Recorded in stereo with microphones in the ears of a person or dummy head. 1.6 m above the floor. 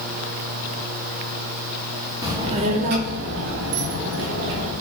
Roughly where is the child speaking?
Centre.